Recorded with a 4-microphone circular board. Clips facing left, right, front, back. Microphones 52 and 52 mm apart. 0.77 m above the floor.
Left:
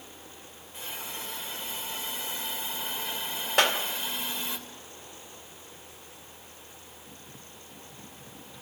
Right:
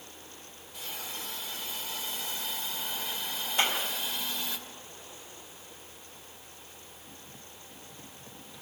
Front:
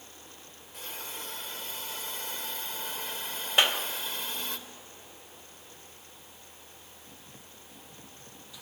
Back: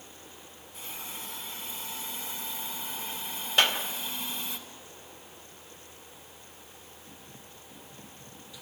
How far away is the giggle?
I don't hear a giggle.